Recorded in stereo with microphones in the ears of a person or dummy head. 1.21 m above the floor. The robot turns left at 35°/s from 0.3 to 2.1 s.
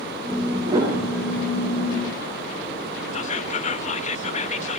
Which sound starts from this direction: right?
A piano, at 0.7 s.